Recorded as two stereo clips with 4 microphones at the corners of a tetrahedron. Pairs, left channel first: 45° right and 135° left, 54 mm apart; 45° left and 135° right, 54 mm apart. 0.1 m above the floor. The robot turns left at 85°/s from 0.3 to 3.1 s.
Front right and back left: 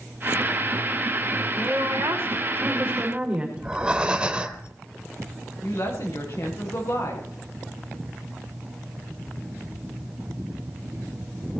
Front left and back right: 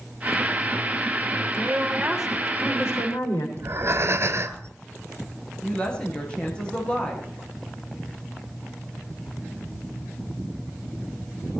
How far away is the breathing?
About 1.4 m.